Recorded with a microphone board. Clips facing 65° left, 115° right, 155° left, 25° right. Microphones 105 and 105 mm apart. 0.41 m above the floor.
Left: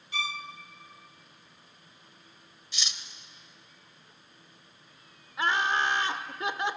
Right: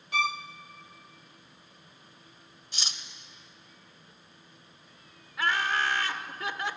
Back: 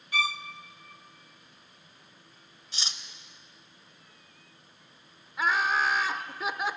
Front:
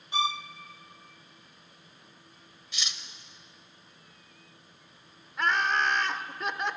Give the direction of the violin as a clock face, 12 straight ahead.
3 o'clock.